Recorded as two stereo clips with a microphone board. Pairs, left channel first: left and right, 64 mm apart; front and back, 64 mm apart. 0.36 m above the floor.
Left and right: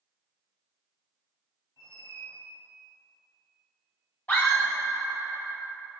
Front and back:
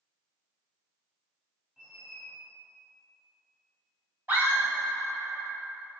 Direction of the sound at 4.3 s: 140° left.